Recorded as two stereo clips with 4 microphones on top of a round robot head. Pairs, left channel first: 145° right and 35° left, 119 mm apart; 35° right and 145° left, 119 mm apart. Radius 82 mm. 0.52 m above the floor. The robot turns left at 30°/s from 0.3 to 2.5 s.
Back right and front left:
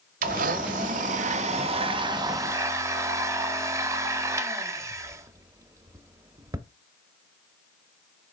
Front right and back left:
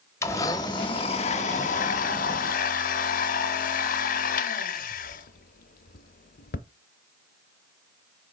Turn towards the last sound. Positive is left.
turn(degrees=-35)